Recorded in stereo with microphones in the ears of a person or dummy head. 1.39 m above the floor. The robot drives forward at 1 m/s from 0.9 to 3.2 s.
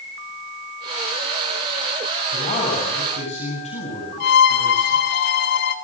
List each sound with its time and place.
2.3 s a man speaking: 30° left (ahead or behind), 8.5 m
4.2 s a violin: 45° left (ahead or behind), 1.3 m